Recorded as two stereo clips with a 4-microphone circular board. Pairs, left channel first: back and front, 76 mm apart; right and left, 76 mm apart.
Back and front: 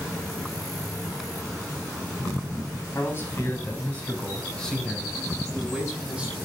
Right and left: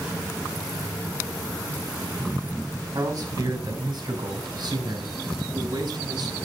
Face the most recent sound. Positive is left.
turn(degrees=75)